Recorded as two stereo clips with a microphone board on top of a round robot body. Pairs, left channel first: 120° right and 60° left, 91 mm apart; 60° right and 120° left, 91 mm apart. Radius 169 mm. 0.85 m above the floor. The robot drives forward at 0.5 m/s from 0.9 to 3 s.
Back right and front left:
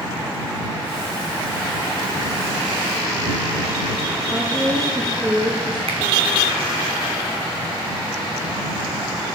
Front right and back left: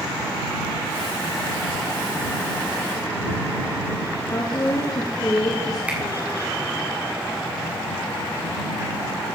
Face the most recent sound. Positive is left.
turn(degrees=45)